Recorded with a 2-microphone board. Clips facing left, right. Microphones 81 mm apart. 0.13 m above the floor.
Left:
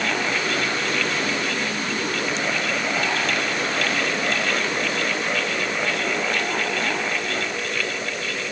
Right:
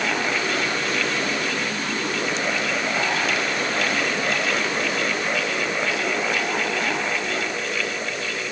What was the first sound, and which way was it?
Only background noise.